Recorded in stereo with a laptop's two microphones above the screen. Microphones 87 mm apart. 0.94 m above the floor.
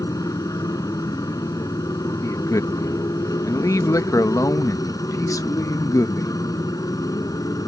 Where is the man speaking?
40° left (ahead or behind).